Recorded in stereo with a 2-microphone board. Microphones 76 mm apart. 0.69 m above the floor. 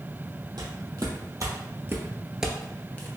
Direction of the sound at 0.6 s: 65° right (ahead or behind).